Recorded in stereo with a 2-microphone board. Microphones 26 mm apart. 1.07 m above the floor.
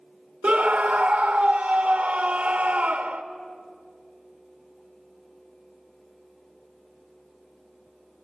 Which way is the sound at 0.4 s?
50° right (ahead or behind).